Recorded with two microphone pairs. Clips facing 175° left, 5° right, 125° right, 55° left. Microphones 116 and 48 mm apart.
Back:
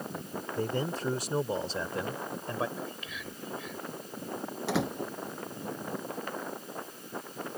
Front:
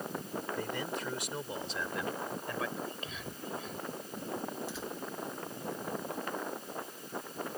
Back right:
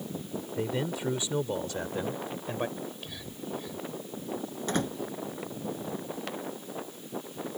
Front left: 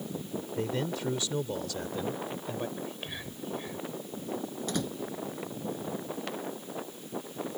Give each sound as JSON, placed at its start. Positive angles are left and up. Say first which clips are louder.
{"t": 0.6, "sound": "a man speaking", "louder": "back 9 dB, back right 1 dB", "azimuth_deg": 160}
{"t": 2.8, "sound": "whispering", "louder": "back 1 dB, front left 1 dB", "azimuth_deg": 30}
{"t": 4.7, "sound": "a door slam", "louder": "back 9 dB, back right 4 dB", "azimuth_deg": -175}